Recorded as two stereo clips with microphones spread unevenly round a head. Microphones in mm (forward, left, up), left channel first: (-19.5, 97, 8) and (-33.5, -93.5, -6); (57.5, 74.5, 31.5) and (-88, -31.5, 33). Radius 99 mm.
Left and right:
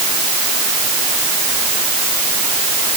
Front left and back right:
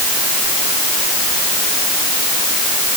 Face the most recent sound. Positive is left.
No sound to turn to.